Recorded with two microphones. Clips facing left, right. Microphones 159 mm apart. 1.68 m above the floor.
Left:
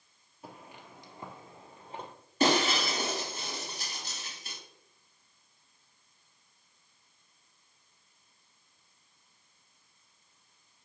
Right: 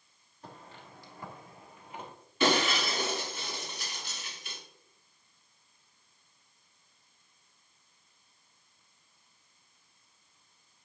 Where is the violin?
No violin in this recording.